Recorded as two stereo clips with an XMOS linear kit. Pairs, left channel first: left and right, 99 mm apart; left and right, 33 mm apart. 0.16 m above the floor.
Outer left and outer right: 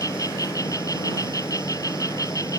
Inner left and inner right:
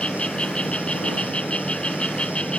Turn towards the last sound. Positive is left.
turn(degrees=35)  # may be behind; listen again after turning